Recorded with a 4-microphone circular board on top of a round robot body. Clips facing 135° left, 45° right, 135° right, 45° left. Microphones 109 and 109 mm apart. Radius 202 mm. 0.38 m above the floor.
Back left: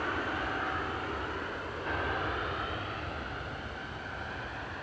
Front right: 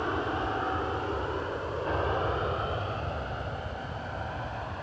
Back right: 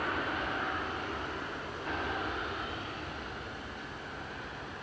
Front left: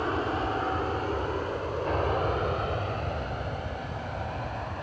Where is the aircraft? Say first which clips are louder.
Front right 4 dB, front left 6 dB; 5° left; by 4.8 s 15° left.